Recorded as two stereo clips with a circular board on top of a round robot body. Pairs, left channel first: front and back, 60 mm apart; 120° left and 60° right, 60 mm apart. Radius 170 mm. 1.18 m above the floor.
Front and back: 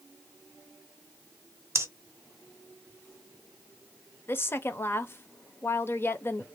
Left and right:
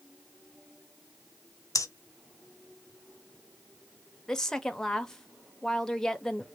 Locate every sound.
1.8 s breathing: 140° left, 0.7 m
4.3 s a woman speaking: 40° left, 0.7 m